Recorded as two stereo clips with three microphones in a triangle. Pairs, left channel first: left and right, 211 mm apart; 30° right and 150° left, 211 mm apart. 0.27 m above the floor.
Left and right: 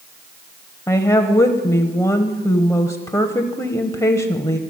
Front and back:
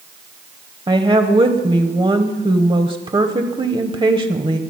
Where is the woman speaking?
140° left, 0.9 m.